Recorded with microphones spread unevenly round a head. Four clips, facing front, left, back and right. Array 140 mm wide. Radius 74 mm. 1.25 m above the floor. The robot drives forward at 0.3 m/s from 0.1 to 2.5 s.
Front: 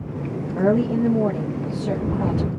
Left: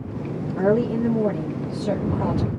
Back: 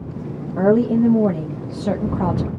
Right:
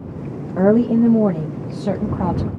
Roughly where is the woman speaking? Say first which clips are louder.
Right 6 dB, back 4 dB; right.